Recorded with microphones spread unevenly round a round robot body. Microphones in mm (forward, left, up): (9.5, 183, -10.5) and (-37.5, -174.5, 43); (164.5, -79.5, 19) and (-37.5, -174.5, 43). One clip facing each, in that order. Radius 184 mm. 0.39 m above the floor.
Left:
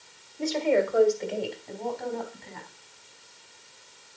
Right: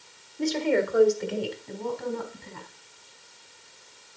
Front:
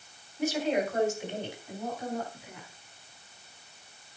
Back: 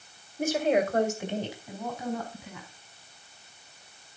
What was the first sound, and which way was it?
A woman speaking, 160° right.